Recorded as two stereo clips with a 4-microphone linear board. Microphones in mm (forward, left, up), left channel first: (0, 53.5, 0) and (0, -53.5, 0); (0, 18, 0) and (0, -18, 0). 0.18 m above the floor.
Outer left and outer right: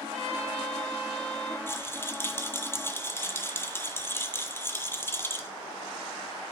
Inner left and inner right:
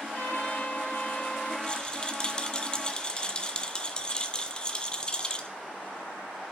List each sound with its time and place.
0.1 s a trumpet: 80° left, 3.5 m
1.7 s a rattle: 25° left (ahead or behind), 0.9 m